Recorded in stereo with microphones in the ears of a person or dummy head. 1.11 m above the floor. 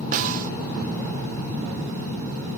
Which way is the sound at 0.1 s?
40° right (ahead or behind).